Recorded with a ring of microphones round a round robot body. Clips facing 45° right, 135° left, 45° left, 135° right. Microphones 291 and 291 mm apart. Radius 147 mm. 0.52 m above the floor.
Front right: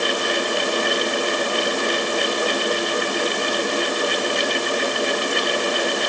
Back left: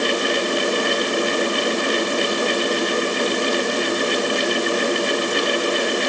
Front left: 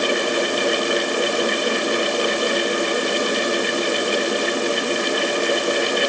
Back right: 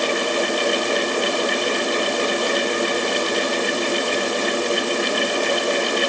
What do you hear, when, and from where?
Only background noise.